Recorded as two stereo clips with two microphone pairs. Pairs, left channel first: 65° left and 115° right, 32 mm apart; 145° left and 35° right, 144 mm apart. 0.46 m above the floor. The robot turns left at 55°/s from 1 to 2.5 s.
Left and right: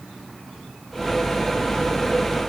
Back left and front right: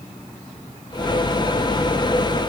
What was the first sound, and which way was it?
Only background noise.